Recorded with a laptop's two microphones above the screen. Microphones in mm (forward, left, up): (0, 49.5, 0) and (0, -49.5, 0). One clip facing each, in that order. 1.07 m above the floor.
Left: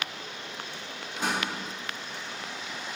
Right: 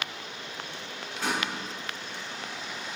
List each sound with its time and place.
1.2 s a door slam: 20° left (ahead or behind), 4 m